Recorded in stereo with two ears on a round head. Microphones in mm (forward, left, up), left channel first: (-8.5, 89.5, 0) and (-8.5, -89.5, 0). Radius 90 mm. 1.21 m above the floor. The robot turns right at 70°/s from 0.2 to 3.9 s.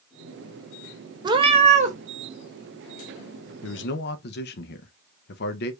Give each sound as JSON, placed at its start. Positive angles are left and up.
{"t": 1.2, "sound": "a cat meowing", "azimuth_deg": -145, "distance_m": 0.6}
{"t": 3.6, "sound": "a man speaking", "side_deg": 75, "distance_m": 0.6}